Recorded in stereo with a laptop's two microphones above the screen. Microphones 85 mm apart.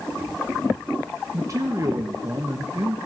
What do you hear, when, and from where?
1.3 s a man speaking: 40° right (ahead or behind), 1.1 m